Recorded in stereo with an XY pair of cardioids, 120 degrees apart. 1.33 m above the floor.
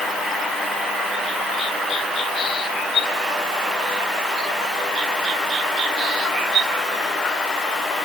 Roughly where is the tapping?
No tapping in this recording.